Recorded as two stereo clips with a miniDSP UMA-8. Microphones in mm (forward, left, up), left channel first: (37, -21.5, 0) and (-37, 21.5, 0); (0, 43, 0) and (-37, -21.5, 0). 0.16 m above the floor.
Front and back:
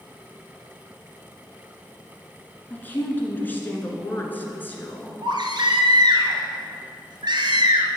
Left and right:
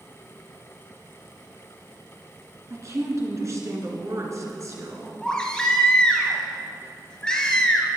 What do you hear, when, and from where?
2.7 s a woman speaking: 90° right, 1.8 m
5.2 s a baby crying: 140° left, 1.5 m